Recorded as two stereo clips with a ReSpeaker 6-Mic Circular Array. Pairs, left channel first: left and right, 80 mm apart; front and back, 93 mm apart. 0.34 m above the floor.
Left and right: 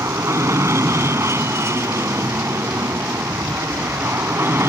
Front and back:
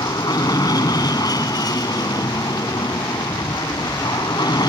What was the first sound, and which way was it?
An aircraft, 40° right.